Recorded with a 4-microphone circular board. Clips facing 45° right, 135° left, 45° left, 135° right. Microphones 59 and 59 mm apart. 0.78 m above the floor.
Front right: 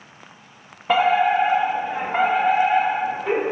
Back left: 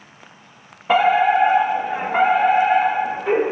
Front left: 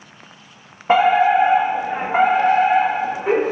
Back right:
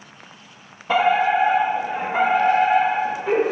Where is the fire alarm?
50° left, 2 m.